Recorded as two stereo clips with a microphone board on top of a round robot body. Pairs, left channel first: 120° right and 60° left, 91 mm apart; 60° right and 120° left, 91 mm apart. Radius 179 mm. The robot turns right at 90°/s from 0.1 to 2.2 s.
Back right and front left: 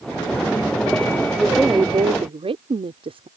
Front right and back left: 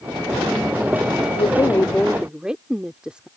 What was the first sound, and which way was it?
A woman speaking, 35° right.